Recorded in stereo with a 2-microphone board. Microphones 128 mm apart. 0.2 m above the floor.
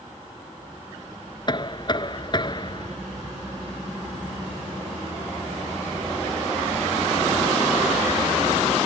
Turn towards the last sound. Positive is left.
turn(degrees=35)  # may be behind; listen again after turning